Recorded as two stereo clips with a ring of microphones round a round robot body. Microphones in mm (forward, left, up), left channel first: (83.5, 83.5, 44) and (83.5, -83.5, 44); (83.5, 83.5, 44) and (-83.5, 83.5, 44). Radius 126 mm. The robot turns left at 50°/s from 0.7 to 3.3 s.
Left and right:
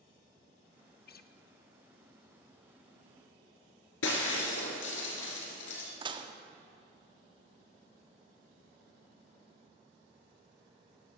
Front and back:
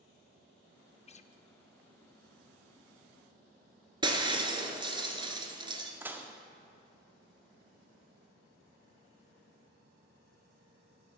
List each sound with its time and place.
1.1 s a guitar: 60° left, 0.6 m; by 1.3 s 45° left, 0.6 m
4.0 s breaking glass: 115° left, 1.3 m
6.0 s dishes clattering: 110° right, 0.6 m